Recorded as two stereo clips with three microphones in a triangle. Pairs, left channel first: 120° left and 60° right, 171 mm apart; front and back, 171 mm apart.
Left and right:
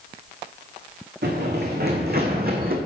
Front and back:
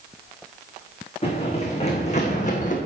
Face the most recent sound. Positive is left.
turn(degrees=-35)